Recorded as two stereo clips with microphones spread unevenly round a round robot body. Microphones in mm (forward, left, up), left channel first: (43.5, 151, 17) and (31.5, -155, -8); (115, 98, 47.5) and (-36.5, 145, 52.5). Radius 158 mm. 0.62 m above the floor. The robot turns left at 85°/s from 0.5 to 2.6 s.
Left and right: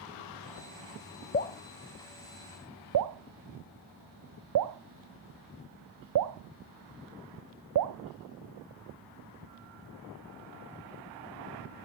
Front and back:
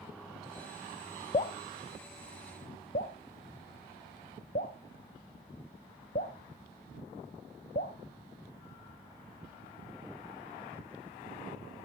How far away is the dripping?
About 0.5 m.